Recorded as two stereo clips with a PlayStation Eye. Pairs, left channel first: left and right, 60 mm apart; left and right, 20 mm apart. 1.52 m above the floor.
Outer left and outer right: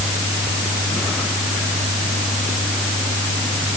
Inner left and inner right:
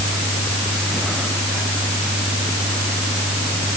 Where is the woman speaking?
I don't hear a woman speaking.